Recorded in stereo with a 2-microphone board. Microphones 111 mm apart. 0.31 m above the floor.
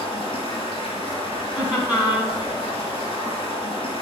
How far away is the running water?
About 3 m.